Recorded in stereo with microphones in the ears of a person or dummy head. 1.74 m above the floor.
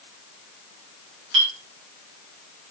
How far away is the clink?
About 2.0 m.